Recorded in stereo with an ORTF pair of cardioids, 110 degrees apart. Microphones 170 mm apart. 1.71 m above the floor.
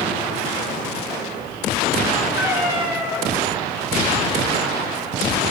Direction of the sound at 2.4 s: 10° right.